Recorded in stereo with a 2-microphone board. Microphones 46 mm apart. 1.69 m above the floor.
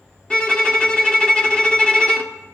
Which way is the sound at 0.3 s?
20° left (ahead or behind).